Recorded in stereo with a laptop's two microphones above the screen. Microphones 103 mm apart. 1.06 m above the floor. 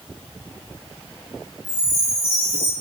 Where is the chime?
25° left (ahead or behind), 1.8 m.